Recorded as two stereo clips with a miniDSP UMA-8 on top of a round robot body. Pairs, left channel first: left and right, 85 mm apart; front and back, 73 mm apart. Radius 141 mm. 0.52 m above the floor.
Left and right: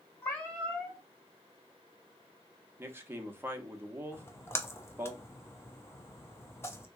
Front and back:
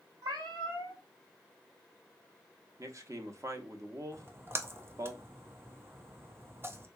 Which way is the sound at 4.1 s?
140° left.